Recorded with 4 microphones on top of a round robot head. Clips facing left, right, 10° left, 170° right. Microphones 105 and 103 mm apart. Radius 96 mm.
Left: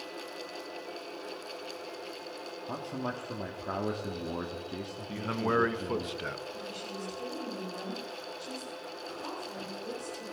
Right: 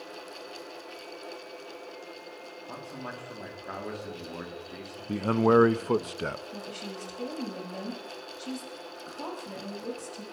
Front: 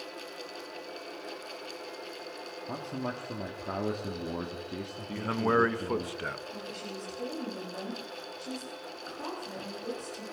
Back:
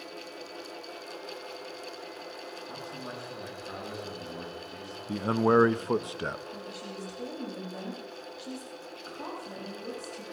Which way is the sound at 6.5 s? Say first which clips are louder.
Right 1 dB, even; 90° right.